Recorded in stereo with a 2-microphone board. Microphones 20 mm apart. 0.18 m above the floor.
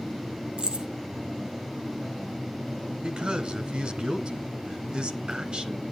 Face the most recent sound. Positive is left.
turn(degrees=-50)  # may be behind; listen again after turning